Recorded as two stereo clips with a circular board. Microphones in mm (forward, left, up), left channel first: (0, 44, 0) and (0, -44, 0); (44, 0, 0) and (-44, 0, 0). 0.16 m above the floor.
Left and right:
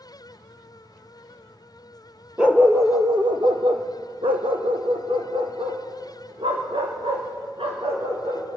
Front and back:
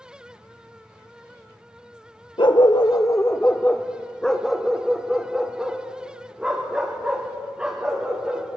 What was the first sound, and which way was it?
A dog barking, 10° right.